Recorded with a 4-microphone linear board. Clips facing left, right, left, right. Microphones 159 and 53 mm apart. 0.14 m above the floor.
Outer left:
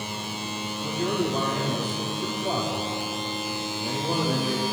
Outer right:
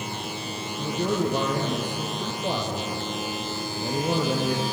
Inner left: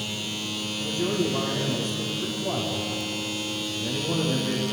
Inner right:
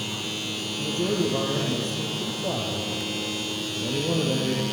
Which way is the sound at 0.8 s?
45° right (ahead or behind).